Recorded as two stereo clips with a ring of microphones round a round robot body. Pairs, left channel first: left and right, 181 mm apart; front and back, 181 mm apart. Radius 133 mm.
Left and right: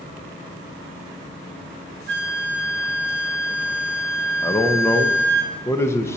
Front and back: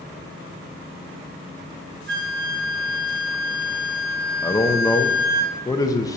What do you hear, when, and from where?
2.1 s a flute: 155° right, 3.5 m
4.4 s a man speaking: 35° left, 0.8 m